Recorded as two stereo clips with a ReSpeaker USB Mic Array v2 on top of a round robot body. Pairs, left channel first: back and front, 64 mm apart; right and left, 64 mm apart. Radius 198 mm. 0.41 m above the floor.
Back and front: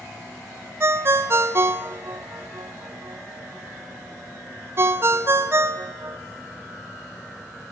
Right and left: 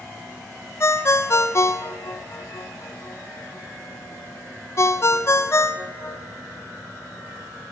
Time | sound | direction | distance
0.8 | a ringtone | 45° right | 0.6 m